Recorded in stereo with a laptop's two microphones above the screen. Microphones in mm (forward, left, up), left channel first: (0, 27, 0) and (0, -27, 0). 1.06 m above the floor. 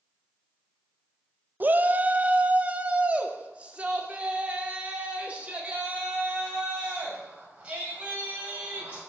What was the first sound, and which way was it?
A shout, 35° right (ahead or behind).